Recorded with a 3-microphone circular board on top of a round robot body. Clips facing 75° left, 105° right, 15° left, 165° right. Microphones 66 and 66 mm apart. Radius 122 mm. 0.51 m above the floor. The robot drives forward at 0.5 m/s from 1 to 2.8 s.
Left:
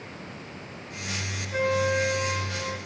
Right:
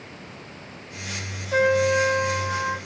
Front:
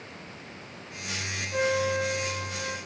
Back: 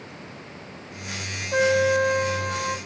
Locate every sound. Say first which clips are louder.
1.5 s a trumpet: right 5 dB, back 7 dB; 130° right, 1.2 m; by 2.8 s 145° right, 1.7 m